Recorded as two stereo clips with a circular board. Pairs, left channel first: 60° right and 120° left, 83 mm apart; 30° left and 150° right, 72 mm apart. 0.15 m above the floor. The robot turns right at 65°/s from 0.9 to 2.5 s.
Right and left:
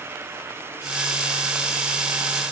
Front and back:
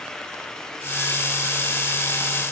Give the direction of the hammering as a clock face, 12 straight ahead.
I don't hear hammering.